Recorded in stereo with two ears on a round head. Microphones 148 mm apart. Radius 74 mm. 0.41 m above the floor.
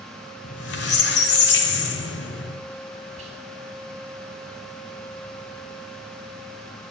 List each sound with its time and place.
0.4 s a squeak: 70° left (ahead or behind), 1.0 m
3.2 s whispering: 40° right (ahead or behind), 1.5 m